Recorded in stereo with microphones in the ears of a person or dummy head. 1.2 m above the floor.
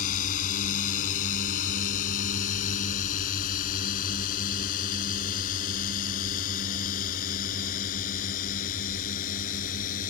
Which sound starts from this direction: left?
A drone, at 0.0 s.